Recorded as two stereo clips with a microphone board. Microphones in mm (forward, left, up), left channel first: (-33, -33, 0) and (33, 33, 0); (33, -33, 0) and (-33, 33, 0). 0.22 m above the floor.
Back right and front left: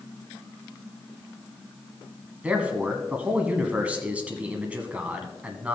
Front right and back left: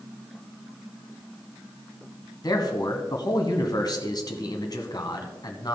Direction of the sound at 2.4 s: 25° right.